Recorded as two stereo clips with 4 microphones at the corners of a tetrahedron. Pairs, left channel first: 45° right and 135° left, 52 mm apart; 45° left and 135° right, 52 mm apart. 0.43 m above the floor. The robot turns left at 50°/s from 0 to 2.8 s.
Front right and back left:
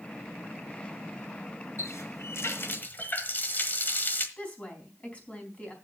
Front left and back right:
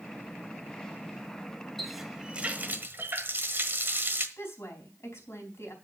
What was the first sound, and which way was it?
A running tap, 40° right.